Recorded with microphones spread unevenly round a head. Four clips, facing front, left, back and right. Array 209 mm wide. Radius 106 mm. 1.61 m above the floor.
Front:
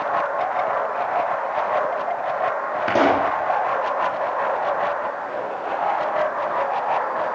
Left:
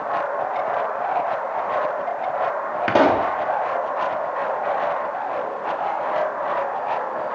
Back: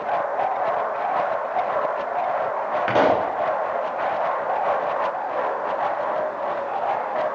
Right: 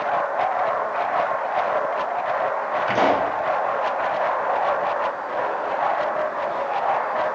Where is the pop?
80° left, 3.5 m.